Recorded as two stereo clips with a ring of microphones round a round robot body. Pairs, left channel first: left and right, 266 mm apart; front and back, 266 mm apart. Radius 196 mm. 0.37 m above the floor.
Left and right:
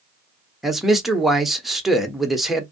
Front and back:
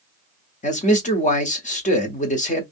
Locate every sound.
0.6 s a man speaking: straight ahead, 0.9 m